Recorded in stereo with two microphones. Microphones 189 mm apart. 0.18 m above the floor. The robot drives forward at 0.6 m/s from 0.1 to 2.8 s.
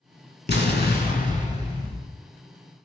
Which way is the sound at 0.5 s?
65° left (ahead or behind).